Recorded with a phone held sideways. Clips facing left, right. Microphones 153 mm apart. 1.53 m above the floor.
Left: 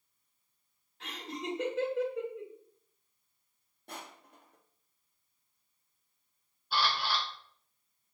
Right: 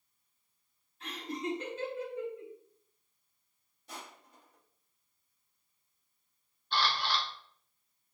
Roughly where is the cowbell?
I don't hear a cowbell.